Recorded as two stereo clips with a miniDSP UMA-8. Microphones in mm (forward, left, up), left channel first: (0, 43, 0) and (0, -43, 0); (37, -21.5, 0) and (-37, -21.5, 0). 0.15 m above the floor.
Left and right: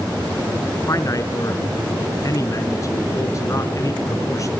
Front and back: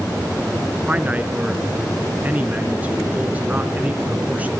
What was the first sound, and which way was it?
A man speaking, 120° left.